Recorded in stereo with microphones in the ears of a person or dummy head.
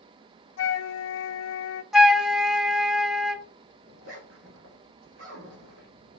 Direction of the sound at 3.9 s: 70° right (ahead or behind).